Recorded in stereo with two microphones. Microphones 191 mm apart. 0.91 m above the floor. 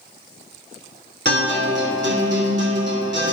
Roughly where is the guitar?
Right.